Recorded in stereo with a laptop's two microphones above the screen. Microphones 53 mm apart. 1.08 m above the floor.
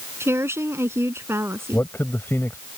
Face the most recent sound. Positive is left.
turn(degrees=45)  # may be behind; listen again after turning